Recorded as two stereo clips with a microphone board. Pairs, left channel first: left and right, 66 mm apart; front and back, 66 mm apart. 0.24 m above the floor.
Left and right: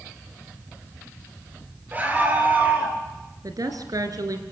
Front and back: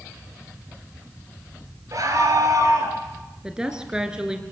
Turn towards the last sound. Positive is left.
turn(degrees=-100)